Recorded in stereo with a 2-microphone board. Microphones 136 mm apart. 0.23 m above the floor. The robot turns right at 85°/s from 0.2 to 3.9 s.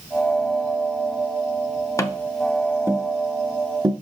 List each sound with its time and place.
2.0 s tapping: 20° left (ahead or behind), 0.7 m; by 3.9 s 30° right (ahead or behind), 0.7 m